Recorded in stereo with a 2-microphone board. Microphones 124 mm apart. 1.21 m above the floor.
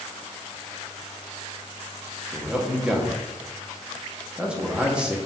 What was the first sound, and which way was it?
A man speaking, 10° right (ahead or behind).